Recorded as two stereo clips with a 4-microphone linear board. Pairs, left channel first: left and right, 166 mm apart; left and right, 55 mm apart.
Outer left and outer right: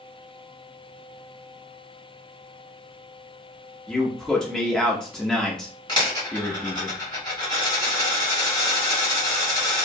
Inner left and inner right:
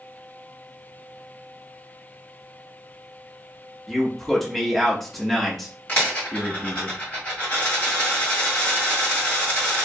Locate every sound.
3.9 s a man speaking: 5° left (ahead or behind), 0.6 m
5.9 s a dropped coin: 30° left (ahead or behind), 1.7 m